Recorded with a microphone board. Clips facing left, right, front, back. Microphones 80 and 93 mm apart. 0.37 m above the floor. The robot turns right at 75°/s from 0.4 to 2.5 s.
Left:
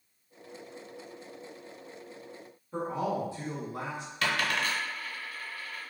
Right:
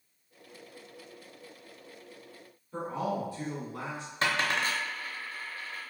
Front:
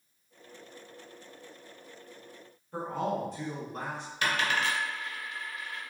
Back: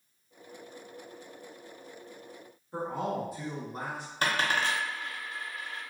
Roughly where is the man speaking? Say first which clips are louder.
Left 1 dB, front 1 dB; behind left.